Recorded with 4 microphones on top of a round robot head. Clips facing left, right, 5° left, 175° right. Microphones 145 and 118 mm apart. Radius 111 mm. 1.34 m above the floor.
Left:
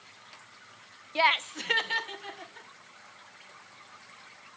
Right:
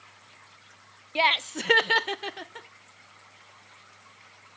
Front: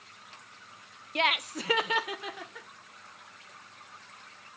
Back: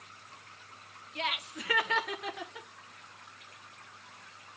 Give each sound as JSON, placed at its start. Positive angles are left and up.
{"t": 1.1, "sound": "laughter", "azimuth_deg": -15, "distance_m": 0.6}